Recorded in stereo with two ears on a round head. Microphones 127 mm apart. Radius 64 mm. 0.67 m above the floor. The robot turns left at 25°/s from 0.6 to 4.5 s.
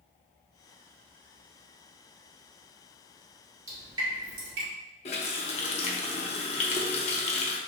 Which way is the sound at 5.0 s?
45° left (ahead or behind).